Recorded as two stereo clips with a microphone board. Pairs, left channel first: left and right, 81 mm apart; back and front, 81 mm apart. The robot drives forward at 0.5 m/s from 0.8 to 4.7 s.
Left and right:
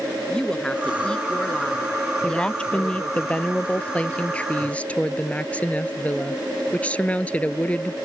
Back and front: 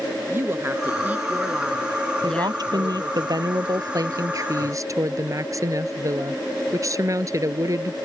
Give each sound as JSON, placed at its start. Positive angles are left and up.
{"t": 0.3, "sound": "a woman speaking", "azimuth_deg": 20}
{"t": 2.2, "sound": "a woman speaking", "azimuth_deg": 15}